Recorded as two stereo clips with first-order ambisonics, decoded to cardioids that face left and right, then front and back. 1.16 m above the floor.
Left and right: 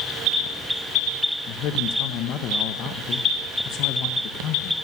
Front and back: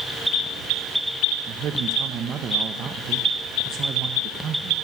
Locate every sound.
1.5 s a man speaking: 125° left, 1.4 m